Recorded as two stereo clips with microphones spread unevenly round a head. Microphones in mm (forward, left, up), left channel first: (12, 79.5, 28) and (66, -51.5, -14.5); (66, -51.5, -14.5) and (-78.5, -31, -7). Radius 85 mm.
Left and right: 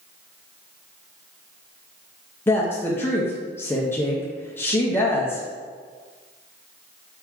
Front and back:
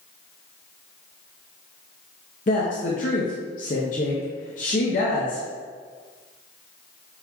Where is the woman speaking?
40° left, 0.7 m.